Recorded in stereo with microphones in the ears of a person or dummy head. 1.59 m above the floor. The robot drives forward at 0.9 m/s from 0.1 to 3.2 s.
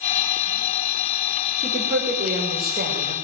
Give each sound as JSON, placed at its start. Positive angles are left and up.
{"t": 1.6, "sound": "a woman speaking", "side_deg": -35, "distance_m": 6.5}